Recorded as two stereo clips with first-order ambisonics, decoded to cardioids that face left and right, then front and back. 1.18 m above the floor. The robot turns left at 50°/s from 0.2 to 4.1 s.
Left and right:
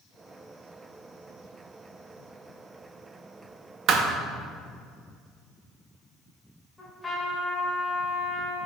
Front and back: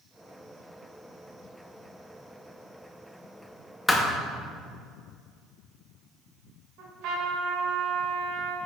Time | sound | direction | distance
3.9 | a thud | 75° right | 0.6 m
6.8 | a trumpet | 170° left | 1.5 m